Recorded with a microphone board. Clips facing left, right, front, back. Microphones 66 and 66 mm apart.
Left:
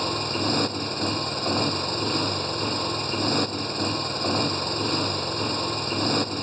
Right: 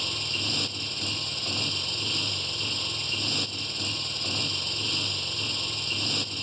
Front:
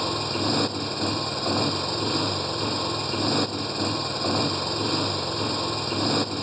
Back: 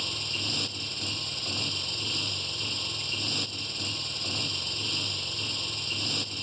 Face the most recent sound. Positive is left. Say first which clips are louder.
# left 9 dB, front 11 dB
turn(degrees=40)